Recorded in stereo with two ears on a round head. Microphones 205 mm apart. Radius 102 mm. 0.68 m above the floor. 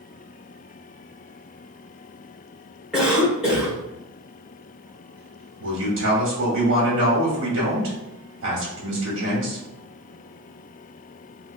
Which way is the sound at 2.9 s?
5° right (ahead or behind).